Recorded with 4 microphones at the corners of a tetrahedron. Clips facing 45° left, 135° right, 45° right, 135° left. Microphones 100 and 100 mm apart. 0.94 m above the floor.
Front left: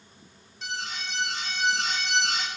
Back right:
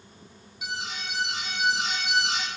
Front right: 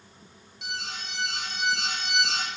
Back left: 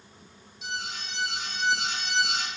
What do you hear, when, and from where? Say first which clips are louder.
0.6 s an alarm: even, back left 1 dB; 55° right, 3 m